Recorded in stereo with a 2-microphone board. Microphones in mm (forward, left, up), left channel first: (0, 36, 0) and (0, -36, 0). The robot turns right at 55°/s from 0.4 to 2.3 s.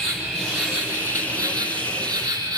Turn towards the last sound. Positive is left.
turn(degrees=-85)